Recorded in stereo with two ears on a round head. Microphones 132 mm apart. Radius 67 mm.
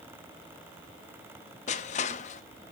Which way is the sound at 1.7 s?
50° left (ahead or behind).